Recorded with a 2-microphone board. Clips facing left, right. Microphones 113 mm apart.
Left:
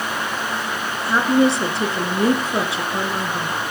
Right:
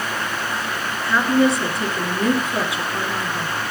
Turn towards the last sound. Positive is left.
turn(degrees=30)  # may be behind; listen again after turning